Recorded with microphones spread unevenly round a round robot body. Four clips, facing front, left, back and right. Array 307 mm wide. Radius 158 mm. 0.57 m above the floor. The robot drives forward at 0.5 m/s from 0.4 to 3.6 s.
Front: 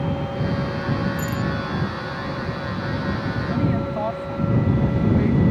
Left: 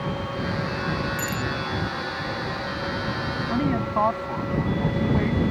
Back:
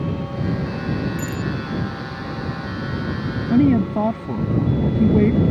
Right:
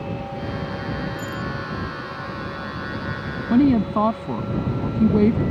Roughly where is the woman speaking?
Behind right.